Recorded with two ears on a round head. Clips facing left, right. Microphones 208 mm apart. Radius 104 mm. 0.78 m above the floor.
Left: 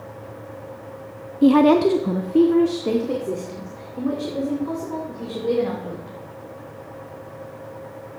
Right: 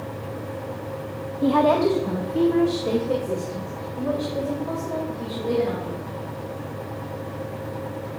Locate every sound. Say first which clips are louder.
1.4 s a woman speaking: left 5 dB; 35° left (ahead or behind), 0.6 m; by 6.1 s 40° left (ahead or behind), 3.5 m